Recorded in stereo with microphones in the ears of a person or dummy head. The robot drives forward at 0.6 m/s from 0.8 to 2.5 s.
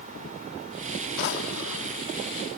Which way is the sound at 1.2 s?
60° left (ahead or behind).